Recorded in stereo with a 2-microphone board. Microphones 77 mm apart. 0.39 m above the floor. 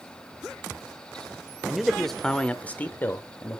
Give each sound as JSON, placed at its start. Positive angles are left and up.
{"t": 1.6, "sound": "a man speaking", "side_deg": -5, "distance_m": 1.2}